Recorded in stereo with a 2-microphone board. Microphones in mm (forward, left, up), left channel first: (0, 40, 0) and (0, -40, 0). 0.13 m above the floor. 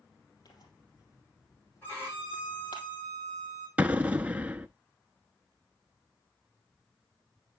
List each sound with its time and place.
0.5 s tearing paper: 55° left (ahead or behind), 3.5 m
1.8 s a violin: 25° left (ahead or behind), 7.5 m
3.8 s an explosion: 20° right (ahead or behind), 0.5 m